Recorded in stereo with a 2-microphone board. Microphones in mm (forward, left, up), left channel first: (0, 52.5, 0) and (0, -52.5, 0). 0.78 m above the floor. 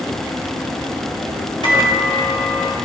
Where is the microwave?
55° left (ahead or behind), 2.5 m.